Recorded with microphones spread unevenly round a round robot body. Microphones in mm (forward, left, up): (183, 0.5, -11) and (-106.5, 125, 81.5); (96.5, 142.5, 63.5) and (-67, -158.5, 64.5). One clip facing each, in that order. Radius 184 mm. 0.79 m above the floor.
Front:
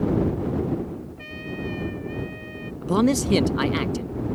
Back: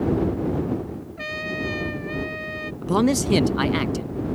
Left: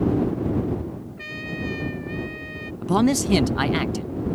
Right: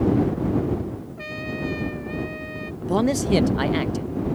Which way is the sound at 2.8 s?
35° left.